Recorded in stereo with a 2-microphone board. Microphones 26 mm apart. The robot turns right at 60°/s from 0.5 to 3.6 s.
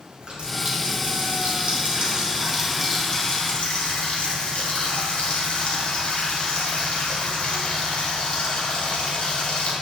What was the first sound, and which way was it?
A running tap, 140° right.